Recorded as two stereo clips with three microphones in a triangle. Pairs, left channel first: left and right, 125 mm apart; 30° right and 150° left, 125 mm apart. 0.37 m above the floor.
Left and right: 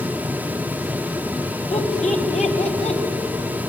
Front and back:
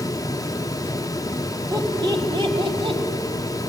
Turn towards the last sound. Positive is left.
turn(degrees=110)